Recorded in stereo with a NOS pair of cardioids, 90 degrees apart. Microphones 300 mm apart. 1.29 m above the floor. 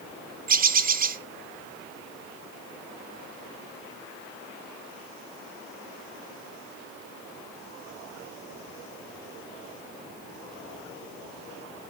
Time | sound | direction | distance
0.5 | a bird | 30° right | 0.8 m